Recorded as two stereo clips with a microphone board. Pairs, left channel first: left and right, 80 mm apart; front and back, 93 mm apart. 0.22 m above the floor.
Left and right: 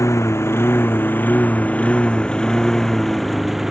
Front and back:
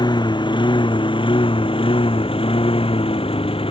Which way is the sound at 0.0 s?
35° left.